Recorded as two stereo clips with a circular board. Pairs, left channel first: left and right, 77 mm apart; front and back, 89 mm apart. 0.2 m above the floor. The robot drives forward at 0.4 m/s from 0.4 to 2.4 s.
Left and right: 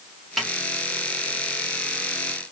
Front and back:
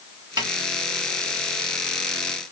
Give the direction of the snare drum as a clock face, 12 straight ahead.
6 o'clock.